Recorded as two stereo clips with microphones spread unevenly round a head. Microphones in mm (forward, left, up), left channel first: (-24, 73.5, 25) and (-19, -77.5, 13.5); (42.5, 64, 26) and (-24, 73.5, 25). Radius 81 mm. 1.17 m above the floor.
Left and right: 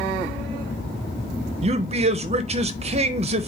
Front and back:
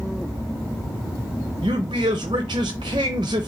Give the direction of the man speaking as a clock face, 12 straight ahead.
5 o'clock.